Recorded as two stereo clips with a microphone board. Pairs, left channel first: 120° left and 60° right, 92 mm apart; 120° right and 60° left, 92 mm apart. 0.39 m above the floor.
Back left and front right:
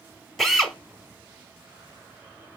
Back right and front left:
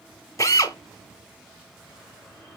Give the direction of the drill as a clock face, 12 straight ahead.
5 o'clock.